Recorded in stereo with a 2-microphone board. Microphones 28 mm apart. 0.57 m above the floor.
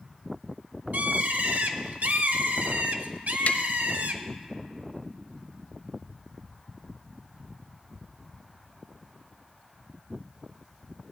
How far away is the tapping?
About 0.5 m.